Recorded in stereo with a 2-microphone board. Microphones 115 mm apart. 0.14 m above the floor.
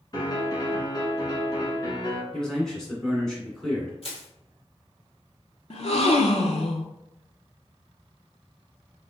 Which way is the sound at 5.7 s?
60° left (ahead or behind).